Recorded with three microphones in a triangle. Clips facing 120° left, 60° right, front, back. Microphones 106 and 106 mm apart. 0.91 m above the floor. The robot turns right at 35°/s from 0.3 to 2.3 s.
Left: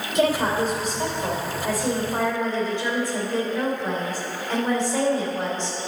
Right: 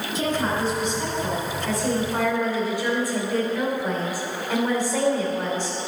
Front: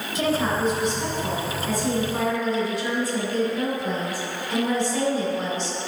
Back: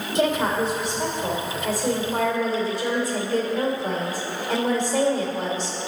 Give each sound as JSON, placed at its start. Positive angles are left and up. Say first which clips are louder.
{"t": 0.1, "sound": "a woman speaking", "louder": "left 4 dB, back 2 dB", "azimuth_deg": 155, "distance_m": 2.5}